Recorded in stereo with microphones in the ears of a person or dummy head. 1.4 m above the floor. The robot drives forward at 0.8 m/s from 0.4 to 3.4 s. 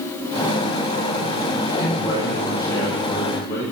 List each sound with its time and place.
1.8 s a man speaking: 20° left (ahead or behind), 6.5 m